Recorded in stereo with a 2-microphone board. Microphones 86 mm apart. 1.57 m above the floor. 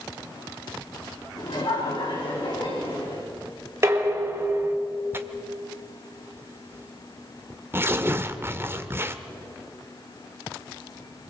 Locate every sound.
1.4 s laughter: 60° left (ahead or behind), 4.5 m; by 3.2 s 70° left (ahead or behind), 5 m
3.8 s dishes clattering: 30° right (ahead or behind), 3.5 m
5.1 s tearing paper: 25° right (ahead or behind), 1.3 m